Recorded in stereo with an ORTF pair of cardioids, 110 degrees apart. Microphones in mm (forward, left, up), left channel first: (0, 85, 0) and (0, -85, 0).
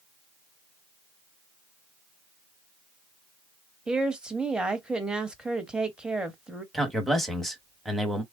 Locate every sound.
3.9 s a woman speaking: 5° right, 1.0 m
6.7 s a man speaking: straight ahead, 1.1 m